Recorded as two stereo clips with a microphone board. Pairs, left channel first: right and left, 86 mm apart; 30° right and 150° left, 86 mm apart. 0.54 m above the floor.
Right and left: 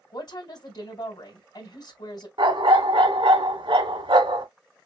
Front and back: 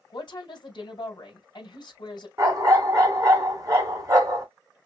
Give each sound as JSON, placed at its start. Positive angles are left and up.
{"t": 0.1, "sound": "a woman speaking", "azimuth_deg": -60, "distance_m": 2.5}
{"t": 2.4, "sound": "a dog barking", "azimuth_deg": 100, "distance_m": 1.9}